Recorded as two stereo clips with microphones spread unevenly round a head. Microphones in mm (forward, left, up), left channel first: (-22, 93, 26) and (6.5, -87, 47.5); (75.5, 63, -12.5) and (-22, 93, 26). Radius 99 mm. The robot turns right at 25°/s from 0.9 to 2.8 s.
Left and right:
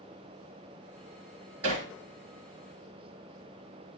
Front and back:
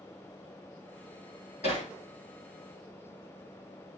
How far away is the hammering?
About 6.5 m.